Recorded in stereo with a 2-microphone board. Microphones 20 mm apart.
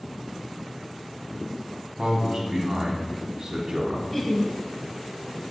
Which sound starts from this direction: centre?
Laughter, at 4.1 s.